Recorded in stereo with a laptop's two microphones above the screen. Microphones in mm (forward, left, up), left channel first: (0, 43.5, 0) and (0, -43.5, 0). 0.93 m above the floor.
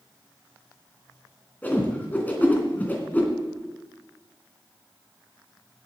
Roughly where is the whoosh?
Centre.